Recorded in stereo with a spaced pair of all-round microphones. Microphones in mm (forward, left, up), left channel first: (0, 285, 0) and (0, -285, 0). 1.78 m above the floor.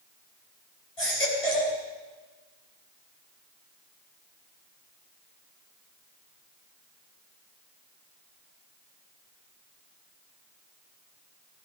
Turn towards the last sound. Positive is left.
turn(degrees=70)  # may be behind; listen again after turning